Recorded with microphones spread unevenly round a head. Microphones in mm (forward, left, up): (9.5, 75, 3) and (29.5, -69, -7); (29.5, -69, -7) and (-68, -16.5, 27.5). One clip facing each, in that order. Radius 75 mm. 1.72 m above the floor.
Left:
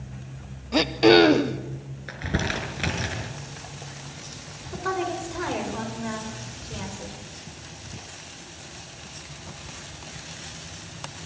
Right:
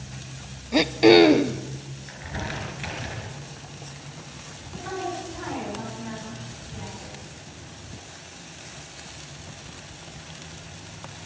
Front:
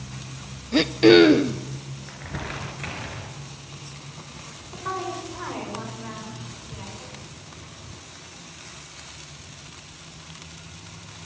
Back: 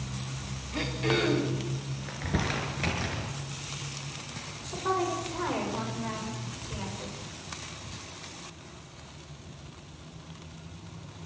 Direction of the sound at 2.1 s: 100° left.